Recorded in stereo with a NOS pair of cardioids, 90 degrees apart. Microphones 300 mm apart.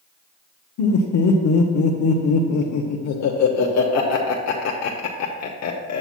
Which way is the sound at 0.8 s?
70° left.